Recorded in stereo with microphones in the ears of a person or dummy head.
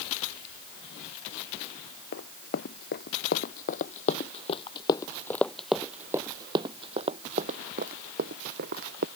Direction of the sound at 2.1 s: 65° left (ahead or behind).